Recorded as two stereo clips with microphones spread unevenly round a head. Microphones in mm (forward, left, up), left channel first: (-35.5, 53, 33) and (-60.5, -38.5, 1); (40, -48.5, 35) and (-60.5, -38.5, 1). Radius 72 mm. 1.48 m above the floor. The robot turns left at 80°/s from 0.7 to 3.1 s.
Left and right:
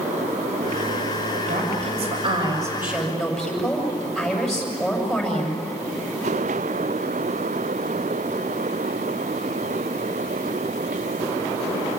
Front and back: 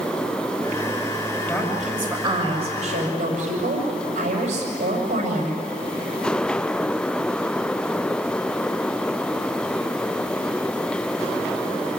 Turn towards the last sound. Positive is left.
turn(degrees=165)